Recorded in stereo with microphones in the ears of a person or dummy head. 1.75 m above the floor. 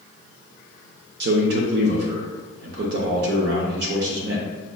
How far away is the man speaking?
About 0.6 m.